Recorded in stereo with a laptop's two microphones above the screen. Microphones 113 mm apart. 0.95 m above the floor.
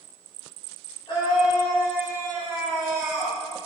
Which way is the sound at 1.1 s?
45° left (ahead or behind).